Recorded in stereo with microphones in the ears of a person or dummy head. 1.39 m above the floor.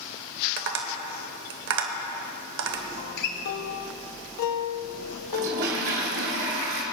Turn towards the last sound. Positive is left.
turn(degrees=-45)  # may be behind; listen again after turning